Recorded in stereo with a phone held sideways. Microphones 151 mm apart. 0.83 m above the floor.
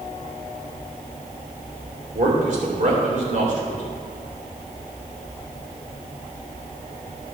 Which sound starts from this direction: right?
A man speaking, at 2.1 s.